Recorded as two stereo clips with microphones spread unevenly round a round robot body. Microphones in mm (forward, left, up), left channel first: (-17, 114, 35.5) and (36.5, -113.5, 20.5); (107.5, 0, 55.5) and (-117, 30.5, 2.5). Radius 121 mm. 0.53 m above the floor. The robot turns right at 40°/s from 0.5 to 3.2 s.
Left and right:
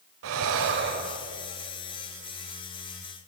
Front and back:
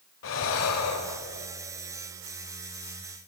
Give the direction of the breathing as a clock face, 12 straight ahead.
1 o'clock.